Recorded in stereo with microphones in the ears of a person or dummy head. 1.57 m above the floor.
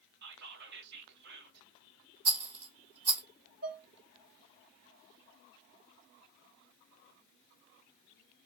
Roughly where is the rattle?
Right.